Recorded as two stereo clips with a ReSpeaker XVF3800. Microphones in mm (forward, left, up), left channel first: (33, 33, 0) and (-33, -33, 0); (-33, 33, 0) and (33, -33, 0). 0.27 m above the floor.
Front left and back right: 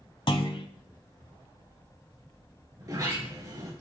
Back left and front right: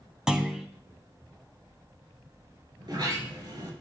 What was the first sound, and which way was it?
A clunk, 40° left.